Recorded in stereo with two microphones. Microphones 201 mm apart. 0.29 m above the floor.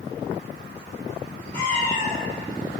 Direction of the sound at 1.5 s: 55° left (ahead or behind).